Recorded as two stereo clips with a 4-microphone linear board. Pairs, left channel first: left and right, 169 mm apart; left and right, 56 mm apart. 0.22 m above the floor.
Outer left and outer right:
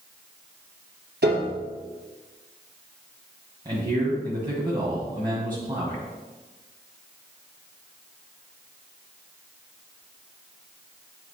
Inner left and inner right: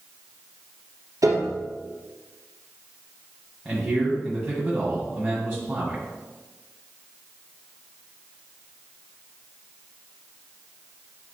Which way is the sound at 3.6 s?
30° right (ahead or behind).